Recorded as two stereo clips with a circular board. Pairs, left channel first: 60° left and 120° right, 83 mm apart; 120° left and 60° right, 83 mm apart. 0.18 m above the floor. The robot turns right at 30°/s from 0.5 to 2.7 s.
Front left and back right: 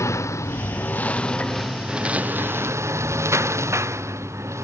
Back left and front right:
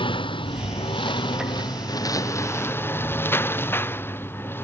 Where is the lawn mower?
115° left; by 4.7 s 175° right.